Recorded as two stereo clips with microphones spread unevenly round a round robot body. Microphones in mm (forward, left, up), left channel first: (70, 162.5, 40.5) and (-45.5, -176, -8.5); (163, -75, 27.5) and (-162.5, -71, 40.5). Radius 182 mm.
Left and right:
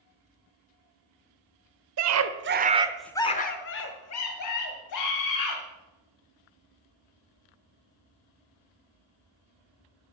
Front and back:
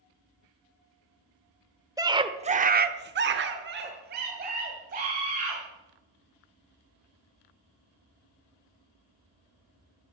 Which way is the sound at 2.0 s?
100° right.